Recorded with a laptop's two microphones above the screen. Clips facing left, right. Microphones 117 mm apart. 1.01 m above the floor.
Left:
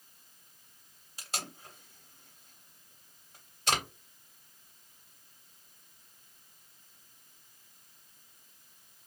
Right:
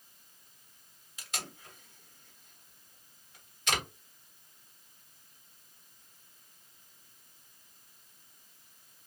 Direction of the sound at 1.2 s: 35° left (ahead or behind).